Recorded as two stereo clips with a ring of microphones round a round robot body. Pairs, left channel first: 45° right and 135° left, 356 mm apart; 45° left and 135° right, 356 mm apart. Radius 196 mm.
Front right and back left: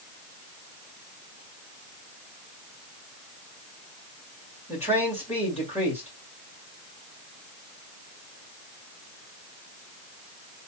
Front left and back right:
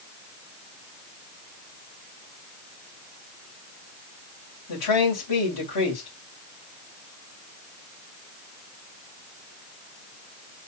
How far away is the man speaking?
About 2.5 m.